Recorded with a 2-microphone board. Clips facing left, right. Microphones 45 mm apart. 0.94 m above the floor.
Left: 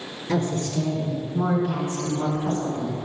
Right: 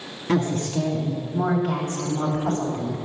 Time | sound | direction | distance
0.3 | a woman speaking | 55° right (ahead or behind) | 1.8 m